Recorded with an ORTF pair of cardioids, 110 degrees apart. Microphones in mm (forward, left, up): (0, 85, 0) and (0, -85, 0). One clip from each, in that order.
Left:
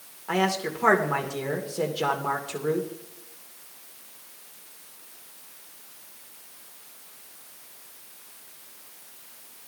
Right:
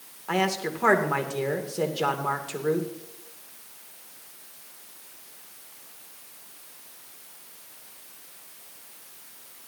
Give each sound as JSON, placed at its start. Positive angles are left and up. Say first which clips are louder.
{"t": 0.3, "sound": "a man speaking", "louder": "left 1 dB", "azimuth_deg": -5, "distance_m": 2.5}